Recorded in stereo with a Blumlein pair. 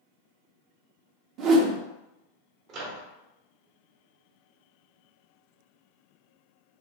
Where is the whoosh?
35° right, 0.6 m.